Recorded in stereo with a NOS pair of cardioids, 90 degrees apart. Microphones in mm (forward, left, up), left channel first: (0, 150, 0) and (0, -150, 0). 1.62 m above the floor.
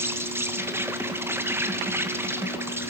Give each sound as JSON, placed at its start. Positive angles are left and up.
{"t": 0.0, "sound": "an insect", "azimuth_deg": -10, "distance_m": 1.6}